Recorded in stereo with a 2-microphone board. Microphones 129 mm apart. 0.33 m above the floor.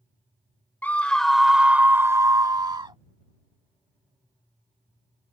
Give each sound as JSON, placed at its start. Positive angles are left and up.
{"t": 0.8, "sound": "a scream", "side_deg": 15}